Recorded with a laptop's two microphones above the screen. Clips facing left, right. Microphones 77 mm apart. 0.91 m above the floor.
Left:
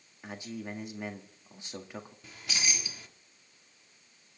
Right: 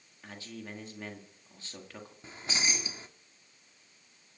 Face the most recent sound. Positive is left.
turn(degrees=-30)  # may be behind; listen again after turning